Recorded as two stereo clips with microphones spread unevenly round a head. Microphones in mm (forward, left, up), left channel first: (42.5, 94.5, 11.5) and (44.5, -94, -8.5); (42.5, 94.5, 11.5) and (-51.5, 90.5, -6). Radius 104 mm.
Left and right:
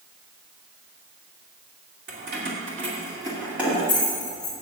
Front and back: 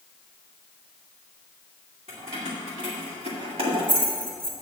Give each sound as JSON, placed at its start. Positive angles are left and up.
{"t": 2.1, "sound": "keys jangling", "azimuth_deg": -130, "distance_m": 2.5}